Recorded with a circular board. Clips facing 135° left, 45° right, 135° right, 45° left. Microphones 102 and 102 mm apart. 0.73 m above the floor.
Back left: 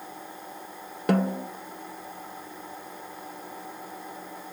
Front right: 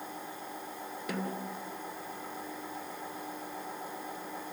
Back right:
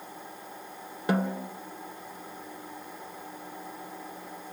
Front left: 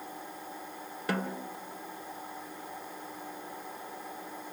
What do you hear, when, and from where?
1.1 s a snare drum: 155° left, 1.2 m